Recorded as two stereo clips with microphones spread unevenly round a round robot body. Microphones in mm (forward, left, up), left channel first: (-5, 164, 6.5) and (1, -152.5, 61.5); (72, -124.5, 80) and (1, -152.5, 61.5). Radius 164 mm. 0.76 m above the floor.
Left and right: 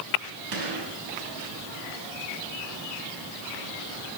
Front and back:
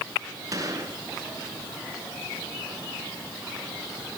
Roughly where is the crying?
No crying in this recording.